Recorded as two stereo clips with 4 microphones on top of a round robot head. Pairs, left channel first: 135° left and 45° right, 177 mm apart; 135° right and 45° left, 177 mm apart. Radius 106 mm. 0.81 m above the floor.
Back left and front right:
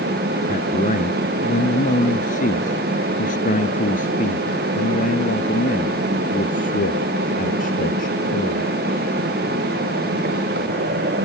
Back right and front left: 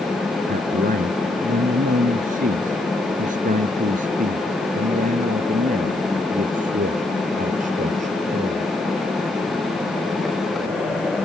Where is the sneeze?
No sneeze in this recording.